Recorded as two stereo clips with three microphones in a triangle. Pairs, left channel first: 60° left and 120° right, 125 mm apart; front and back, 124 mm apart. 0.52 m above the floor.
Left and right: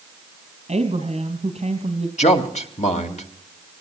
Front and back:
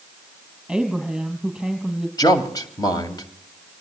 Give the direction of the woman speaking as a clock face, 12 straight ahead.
3 o'clock.